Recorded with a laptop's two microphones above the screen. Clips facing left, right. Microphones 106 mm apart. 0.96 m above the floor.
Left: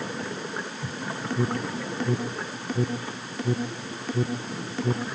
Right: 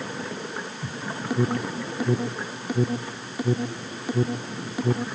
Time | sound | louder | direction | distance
1.3 | an alarm | right 3 dB | 10° right (ahead or behind) | ?